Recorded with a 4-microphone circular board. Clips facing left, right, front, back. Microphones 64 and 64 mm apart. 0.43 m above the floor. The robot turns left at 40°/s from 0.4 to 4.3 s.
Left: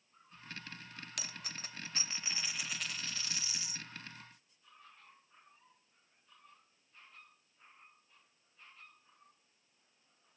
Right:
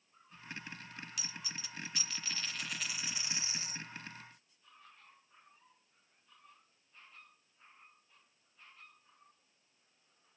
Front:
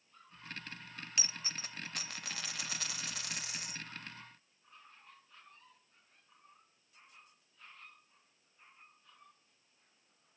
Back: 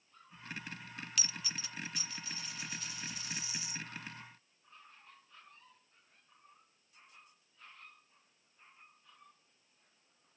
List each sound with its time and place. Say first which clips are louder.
1.2 s a dropped coin: even, front 1 dB; 65° left, 0.6 m; by 3.9 s 45° right, 0.6 m